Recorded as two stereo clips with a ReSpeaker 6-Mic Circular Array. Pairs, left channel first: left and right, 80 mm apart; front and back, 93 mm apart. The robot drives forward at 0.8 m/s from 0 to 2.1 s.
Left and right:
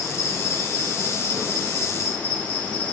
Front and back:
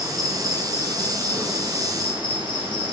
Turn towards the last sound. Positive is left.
turn(degrees=150)